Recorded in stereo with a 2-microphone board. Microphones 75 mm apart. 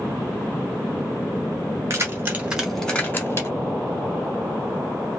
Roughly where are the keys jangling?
Right.